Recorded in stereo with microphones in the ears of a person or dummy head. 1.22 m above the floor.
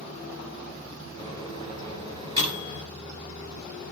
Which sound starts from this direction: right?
A microwave, at 1.2 s.